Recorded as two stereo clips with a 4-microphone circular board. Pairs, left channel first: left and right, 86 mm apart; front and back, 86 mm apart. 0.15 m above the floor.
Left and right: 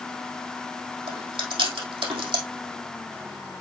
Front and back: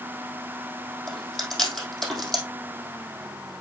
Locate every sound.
1.1 s chewing: 85° right, 3.5 m